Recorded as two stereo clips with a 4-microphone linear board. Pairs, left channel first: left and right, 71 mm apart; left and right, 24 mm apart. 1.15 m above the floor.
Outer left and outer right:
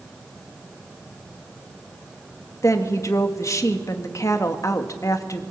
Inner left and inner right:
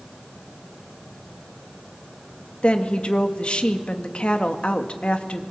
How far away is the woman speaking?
About 1.9 m.